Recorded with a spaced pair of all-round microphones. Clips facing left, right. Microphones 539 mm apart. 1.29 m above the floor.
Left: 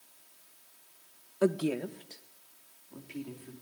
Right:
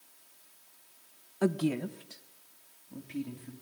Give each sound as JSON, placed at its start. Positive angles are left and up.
{"t": 1.4, "sound": "a woman speaking", "side_deg": -10, "distance_m": 1.0}